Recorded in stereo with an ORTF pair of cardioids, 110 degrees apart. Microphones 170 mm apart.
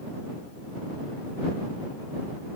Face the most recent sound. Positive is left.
No sound to turn to.